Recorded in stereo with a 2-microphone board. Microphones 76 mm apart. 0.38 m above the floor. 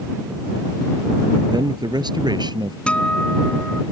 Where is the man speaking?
70° right (ahead or behind).